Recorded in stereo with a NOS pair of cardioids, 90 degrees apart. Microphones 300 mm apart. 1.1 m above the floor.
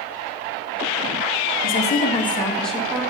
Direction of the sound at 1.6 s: 45° left.